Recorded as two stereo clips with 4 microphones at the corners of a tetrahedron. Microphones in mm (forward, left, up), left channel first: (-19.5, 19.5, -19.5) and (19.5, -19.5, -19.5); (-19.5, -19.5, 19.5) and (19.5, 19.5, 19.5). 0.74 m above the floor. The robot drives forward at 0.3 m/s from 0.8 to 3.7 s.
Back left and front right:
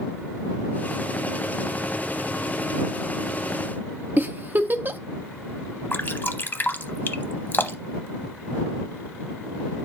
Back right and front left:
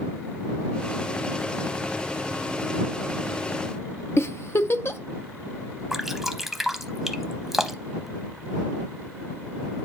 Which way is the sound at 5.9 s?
125° left.